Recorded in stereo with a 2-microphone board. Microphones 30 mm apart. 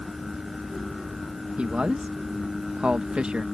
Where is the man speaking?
40° right (ahead or behind).